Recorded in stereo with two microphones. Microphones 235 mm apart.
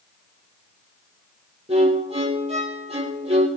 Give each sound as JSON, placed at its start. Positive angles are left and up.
{"t": 1.7, "sound": "a violin", "side_deg": -25, "distance_m": 3.0}